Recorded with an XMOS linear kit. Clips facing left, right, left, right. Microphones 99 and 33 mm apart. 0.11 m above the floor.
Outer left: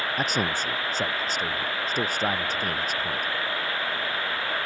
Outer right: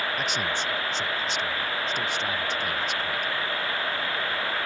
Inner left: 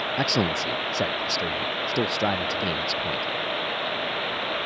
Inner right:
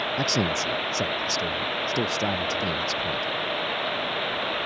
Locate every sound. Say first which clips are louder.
0.2 s a man speaking: outer left 2 dB, inner left 2 dB; 40° left (ahead or behind)